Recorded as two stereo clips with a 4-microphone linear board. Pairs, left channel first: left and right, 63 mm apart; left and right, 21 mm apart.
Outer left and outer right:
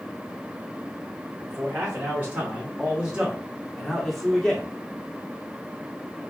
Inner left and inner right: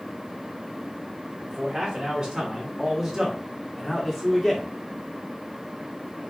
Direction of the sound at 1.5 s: 30° right (ahead or behind).